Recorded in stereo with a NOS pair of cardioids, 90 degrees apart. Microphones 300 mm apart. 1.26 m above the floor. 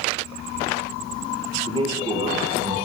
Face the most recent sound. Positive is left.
turn(degrees=-25)